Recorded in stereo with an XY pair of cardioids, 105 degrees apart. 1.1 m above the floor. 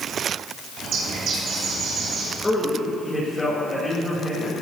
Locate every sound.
0.8 s a bird: 65° right, 4.5 m
2.4 s a man speaking: 20° left, 5 m